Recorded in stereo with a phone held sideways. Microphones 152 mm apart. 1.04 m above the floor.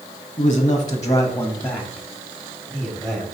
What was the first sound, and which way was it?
A man speaking, 40° left (ahead or behind).